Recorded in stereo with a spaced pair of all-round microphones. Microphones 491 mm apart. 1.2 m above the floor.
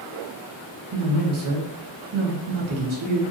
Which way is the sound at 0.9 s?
75° right (ahead or behind).